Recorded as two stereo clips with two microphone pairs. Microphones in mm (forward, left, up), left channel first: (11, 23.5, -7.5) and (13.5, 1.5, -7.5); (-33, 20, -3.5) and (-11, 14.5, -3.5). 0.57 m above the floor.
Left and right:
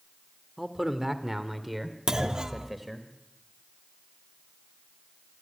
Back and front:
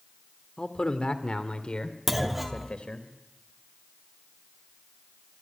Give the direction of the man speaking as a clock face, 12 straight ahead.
5 o'clock.